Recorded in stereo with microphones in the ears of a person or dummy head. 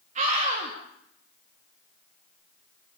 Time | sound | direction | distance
0.1 | a scream | 40° right (ahead or behind) | 3.5 m